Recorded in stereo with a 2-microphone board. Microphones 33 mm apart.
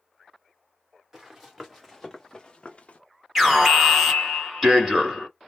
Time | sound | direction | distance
1.1 | running footsteps | 15° right (ahead or behind) | 1.7 m
3.4 | an alarm | 5° right (ahead or behind) | 1.7 m